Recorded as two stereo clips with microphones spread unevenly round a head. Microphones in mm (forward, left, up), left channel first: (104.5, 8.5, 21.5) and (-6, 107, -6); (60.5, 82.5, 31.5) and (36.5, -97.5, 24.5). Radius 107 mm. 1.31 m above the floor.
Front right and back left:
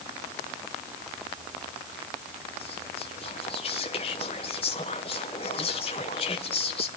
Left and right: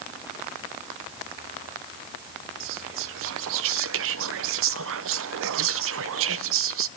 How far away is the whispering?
About 0.5 m.